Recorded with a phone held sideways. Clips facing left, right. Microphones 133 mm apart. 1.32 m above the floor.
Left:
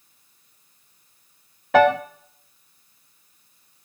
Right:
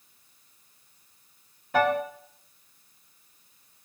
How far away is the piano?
About 0.6 m.